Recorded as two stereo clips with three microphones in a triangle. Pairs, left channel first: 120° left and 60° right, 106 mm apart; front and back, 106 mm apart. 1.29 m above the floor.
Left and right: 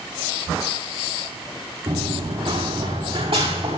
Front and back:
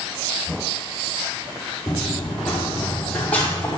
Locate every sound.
1.9 s running footsteps: 80° right, 5 m; by 3.8 s 75° right, 6.5 m